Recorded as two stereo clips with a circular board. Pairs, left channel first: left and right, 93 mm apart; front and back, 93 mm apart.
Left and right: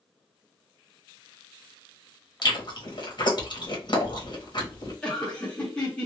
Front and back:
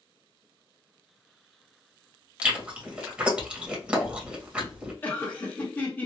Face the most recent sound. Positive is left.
turn(degrees=30)